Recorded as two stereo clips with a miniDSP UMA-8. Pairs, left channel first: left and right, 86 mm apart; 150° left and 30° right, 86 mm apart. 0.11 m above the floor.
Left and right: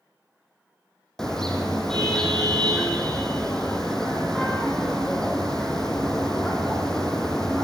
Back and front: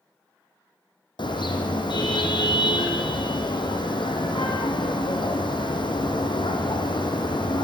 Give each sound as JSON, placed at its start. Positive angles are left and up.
{"t": 1.2, "sound": "a car horn", "azimuth_deg": 175, "distance_m": 3.0}